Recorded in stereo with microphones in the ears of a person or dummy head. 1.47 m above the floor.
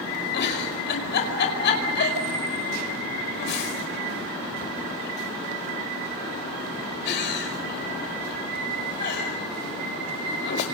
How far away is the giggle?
About 5 m.